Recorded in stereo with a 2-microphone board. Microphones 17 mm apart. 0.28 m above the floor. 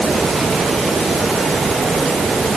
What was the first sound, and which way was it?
Only background noise.